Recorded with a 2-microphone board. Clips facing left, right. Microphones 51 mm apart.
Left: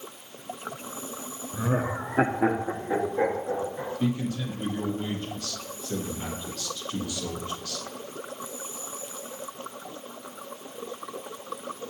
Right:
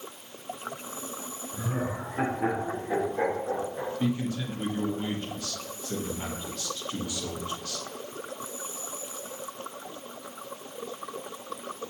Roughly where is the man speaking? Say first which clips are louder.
Left 1 dB; centre.